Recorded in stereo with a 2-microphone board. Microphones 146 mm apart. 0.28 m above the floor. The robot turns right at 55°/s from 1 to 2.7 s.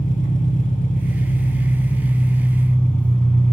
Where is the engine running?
75° left, 1.0 m; by 3.5 s 170° left, 1.0 m.